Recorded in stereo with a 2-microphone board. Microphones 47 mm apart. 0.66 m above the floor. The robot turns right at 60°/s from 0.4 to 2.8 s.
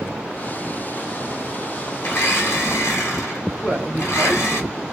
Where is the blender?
45° left, 1.2 m; by 4.6 s 95° left, 1.2 m.